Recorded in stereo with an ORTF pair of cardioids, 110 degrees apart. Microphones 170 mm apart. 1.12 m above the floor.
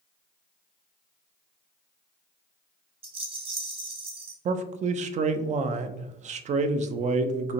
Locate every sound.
3.0 s a rattle: 30° right, 1.0 m
4.5 s a man speaking: 45° right, 0.5 m